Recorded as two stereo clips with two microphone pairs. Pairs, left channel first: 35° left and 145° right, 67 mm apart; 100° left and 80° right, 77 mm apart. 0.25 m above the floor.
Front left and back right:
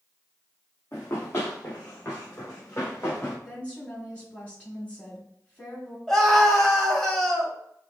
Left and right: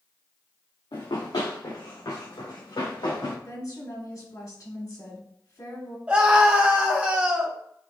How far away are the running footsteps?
About 1.4 m.